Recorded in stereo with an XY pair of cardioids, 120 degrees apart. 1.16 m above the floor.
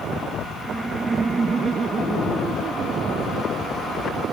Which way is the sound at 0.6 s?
10° right.